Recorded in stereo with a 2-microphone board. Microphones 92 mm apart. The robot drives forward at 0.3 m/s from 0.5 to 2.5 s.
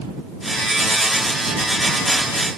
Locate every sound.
Only background noise.